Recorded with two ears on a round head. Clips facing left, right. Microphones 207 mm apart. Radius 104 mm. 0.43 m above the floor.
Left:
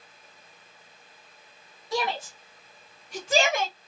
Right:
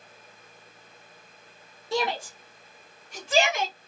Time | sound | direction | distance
1.9 | a shout | 25° right (ahead or behind) | 1.5 m